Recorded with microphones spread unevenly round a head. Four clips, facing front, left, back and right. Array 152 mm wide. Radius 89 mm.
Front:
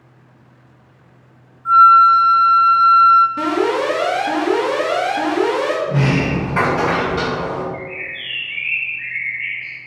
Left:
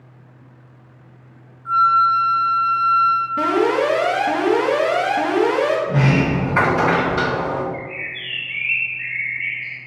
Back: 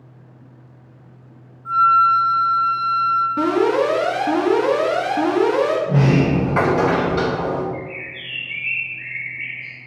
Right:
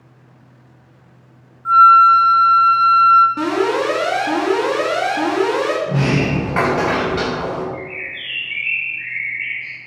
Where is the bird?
140° right, 2 m.